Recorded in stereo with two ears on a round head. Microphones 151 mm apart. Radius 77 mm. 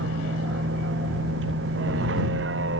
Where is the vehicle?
90° right.